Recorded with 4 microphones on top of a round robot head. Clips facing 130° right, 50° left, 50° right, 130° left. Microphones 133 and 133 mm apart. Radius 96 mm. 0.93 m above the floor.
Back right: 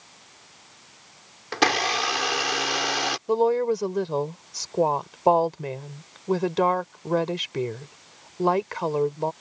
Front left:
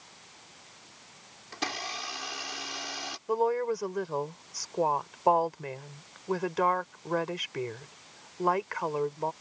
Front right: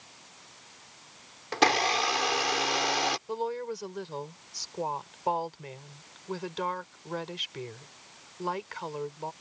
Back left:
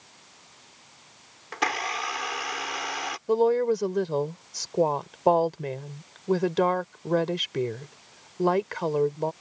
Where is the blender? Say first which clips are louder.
Back right 13 dB, front right 4 dB; 110° right.